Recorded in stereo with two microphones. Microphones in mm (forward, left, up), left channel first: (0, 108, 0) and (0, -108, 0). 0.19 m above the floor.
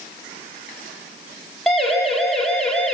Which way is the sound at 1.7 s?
Centre (ahead or behind).